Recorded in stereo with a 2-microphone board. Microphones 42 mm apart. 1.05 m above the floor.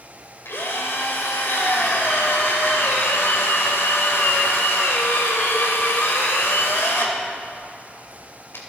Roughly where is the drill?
Left.